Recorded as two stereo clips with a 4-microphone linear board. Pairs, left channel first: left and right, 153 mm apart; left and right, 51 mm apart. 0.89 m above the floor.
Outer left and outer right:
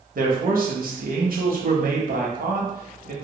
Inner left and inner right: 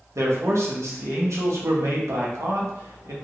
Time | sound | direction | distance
0.1 | a man speaking | 70° right (ahead or behind) | 0.7 m